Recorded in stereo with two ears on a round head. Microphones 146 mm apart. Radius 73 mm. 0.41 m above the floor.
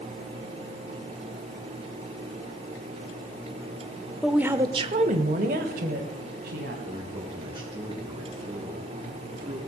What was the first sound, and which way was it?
A woman speaking, centre (ahead or behind).